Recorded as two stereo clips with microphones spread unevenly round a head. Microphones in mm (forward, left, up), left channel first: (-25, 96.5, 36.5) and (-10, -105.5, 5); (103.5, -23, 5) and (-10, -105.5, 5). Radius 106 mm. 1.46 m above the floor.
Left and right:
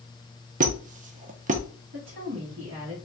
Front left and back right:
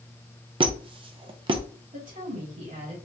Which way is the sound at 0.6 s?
130° right.